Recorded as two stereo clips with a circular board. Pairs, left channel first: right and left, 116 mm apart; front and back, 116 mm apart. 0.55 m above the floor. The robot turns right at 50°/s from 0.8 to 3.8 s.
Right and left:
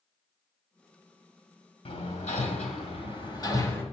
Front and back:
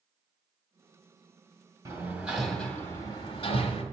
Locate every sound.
1.9 s hammering: 120° right, 1.6 m; by 3.8 s 20° right, 1.6 m